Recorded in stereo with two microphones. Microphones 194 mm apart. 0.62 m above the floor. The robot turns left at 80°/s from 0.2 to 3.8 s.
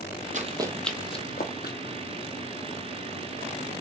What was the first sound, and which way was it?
Running footsteps, 45° right (ahead or behind).